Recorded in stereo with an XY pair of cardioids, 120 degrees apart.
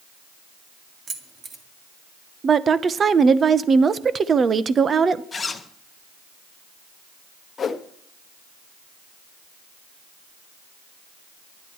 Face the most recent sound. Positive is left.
turn(degrees=35)